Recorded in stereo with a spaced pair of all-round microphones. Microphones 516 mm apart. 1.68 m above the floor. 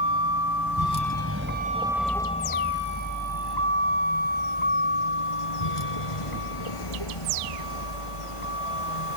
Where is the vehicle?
50° right (ahead or behind); by 9.2 s 85° left.